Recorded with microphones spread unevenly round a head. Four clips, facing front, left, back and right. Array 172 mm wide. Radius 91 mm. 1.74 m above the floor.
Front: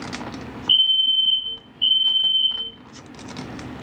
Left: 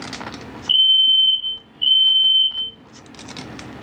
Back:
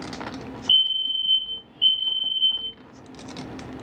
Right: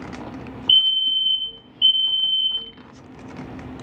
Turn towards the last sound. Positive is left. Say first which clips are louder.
# left 4 dB, front 5 dB
turn(degrees=-135)